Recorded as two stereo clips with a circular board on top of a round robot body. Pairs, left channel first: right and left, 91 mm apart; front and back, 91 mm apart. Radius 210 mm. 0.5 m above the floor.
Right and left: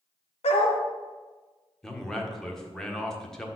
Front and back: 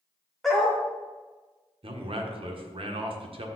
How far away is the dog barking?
About 1.2 m.